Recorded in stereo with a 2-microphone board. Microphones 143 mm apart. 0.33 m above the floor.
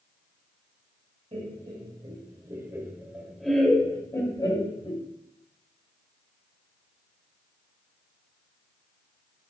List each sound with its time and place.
1.3 s laughter: 45° right (ahead or behind), 2.0 m; by 5.0 s 40° left (ahead or behind), 1.8 m